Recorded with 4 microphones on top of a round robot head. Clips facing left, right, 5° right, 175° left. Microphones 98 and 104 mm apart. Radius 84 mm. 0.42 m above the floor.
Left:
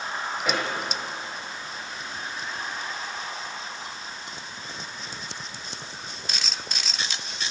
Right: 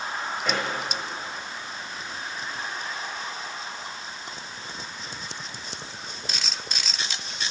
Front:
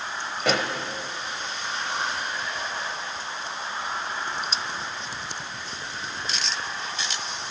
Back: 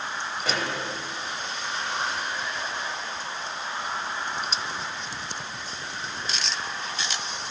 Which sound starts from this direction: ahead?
A pop, at 0.4 s.